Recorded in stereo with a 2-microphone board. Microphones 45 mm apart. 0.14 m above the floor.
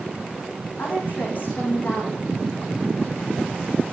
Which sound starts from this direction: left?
A woman speaking, at 0.8 s.